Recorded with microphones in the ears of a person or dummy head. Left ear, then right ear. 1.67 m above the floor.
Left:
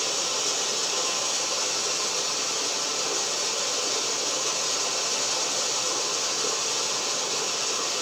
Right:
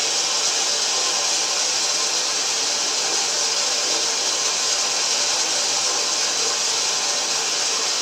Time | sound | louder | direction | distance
0.0 | running water | right 5 dB | 60° right (ahead or behind) | 8.5 m